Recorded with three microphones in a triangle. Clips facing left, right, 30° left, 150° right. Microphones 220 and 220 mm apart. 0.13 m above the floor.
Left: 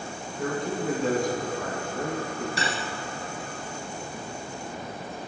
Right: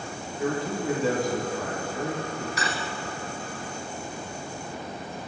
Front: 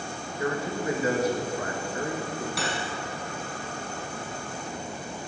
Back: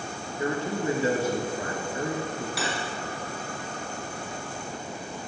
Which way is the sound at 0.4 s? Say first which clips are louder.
Right 1 dB, back 1 dB; straight behind.